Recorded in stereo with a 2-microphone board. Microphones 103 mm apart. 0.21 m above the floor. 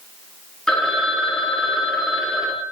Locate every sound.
0.7 s a phone ringing: 5° left (ahead or behind), 2.5 m